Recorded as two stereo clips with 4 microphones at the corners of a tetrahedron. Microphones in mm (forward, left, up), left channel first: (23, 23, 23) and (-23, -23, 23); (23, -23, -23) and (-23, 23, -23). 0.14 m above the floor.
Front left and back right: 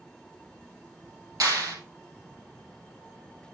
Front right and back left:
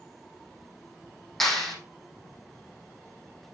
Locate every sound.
1.4 s a clap: 130° right, 4.5 m